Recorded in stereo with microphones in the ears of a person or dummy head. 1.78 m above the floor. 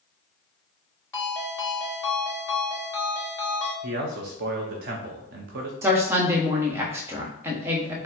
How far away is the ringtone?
About 2.0 m.